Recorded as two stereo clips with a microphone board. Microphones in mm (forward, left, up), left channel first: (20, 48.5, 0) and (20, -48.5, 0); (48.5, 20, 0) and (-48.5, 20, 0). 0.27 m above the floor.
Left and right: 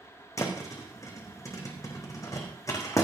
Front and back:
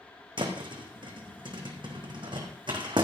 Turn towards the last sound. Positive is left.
turn(degrees=145)